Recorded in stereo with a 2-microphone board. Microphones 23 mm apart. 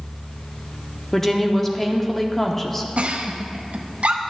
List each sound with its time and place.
1.1 s a woman speaking: 15° left (ahead or behind), 0.8 m
3.0 s a giggle: 75° right (ahead or behind), 0.7 m